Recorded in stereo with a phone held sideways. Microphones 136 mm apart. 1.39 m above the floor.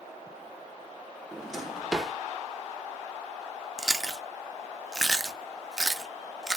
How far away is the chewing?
About 0.5 m.